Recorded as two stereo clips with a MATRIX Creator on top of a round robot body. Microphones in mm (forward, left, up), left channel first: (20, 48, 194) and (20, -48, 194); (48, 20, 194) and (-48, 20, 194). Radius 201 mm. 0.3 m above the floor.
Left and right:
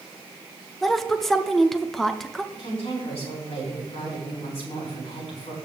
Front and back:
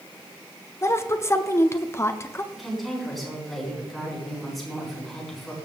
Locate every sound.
0.8 s a woman speaking: 5° left, 1.1 m
2.5 s a woman speaking: 90° left, 4.5 m